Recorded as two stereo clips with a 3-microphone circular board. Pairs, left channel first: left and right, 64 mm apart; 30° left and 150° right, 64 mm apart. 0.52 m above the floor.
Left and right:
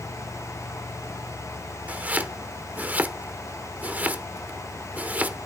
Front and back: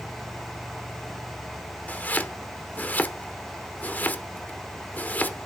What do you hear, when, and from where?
1.9 s chopping: 30° right, 1.0 m